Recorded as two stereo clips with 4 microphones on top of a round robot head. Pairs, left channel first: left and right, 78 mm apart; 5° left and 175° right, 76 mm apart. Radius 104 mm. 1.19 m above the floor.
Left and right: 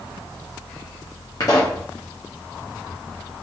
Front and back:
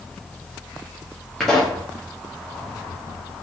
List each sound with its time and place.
1.4 s a pop: 85° left, 0.7 m